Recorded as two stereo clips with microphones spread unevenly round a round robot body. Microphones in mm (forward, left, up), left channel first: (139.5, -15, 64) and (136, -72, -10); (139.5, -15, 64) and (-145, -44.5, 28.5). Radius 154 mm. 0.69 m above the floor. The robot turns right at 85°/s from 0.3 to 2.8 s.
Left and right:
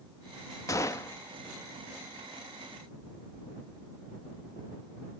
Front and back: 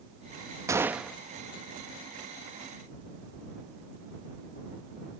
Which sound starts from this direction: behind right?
A gunshot, at 0.7 s.